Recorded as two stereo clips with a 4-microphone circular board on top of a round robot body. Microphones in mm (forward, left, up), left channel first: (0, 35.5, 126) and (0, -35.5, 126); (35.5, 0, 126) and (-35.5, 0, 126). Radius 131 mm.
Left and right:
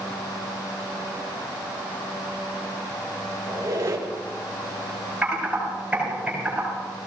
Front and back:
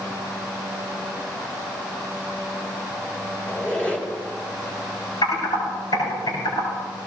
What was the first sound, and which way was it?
A squeak, 65° right.